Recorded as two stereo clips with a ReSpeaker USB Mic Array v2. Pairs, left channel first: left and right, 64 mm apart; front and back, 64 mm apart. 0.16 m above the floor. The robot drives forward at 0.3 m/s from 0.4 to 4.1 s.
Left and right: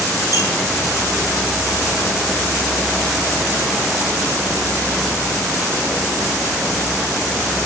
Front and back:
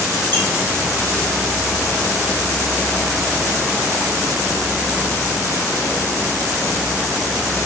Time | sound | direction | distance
0.3 | a squeak | 60° right | 2.5 m